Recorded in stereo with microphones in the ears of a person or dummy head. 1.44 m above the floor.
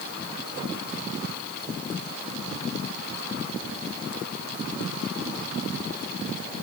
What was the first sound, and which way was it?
Only background noise.